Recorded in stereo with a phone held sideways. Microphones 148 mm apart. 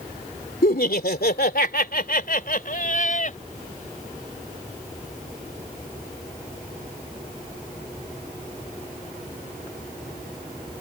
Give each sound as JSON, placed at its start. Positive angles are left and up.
{"t": 0.6, "sound": "laughter", "side_deg": 70}